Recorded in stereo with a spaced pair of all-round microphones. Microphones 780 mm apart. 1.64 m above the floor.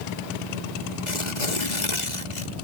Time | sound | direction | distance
1.1 | tearing paper | 70° left (ahead or behind) | ?